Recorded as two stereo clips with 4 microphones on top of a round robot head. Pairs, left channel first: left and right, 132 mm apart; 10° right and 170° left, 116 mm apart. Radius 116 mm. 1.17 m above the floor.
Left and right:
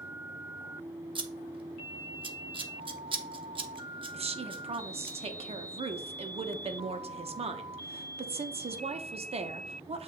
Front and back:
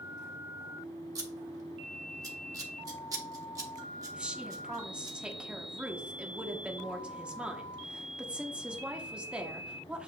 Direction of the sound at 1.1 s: 135° right.